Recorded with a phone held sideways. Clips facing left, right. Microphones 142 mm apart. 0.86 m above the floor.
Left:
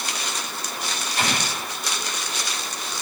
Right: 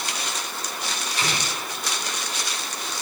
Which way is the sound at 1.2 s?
60° left (ahead or behind).